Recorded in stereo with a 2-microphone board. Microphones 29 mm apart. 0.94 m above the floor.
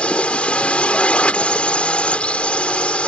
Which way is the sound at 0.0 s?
45° left (ahead or behind).